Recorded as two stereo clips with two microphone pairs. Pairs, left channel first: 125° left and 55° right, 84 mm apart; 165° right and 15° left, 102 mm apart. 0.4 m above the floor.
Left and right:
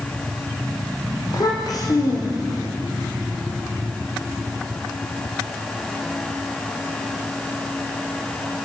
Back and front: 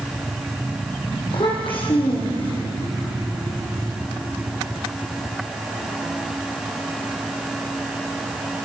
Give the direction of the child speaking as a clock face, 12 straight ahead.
7 o'clock.